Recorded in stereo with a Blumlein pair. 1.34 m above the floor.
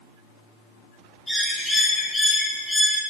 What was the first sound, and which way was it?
A bird, straight ahead.